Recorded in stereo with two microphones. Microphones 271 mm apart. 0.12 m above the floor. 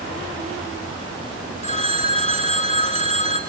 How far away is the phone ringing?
About 0.9 m.